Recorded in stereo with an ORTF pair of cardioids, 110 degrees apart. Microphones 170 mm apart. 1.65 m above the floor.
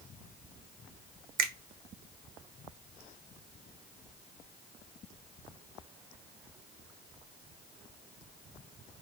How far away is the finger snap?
About 1.0 m.